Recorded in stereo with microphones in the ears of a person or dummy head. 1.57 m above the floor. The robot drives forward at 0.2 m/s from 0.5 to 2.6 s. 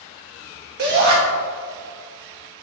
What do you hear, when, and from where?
0.8 s a shout: 55° right (ahead or behind), 1.2 m